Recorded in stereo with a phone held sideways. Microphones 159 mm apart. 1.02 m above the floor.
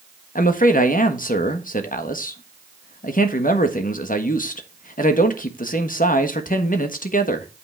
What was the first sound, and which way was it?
A man speaking, 60° left (ahead or behind).